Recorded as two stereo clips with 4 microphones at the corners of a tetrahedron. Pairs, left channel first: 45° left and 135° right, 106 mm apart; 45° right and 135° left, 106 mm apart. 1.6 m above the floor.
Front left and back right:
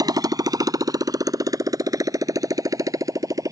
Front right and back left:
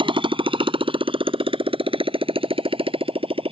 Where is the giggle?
No giggle in this recording.